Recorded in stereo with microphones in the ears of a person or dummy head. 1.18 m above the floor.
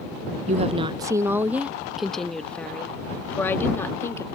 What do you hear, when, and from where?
0.5 s a woman speaking: 35° right (ahead or behind); by 4.3 s 15° left (ahead or behind)